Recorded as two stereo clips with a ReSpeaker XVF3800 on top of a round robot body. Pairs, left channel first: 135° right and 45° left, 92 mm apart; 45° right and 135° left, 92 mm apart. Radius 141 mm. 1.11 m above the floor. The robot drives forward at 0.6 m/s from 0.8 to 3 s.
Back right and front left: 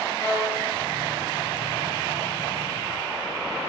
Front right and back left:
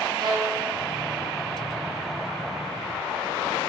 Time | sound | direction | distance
0.2 | a violin | 175° left | 3 m